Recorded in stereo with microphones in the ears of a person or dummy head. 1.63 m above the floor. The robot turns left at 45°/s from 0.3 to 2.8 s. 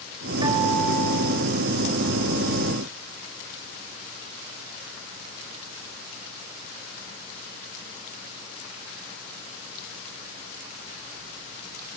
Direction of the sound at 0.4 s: 160° right.